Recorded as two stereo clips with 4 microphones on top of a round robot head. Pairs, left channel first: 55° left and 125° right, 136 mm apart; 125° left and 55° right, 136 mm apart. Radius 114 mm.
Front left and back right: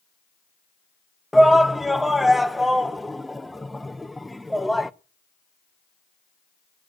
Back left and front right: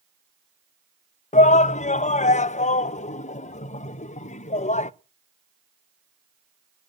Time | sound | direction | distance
1.3 | a shout | 145° left | 0.8 m